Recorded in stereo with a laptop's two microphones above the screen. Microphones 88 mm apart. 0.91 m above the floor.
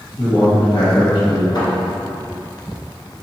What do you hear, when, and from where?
0.2 s a man speaking: 60° left (ahead or behind), 1.1 m
1.6 s a thud: 60° left (ahead or behind), 1.5 m